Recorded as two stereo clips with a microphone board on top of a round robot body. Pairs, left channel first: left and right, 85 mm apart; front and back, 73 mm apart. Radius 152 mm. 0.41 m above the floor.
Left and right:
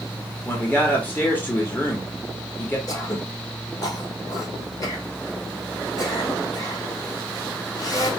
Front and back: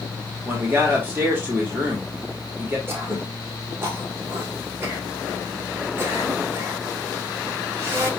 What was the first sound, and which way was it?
A man speaking, 140° left.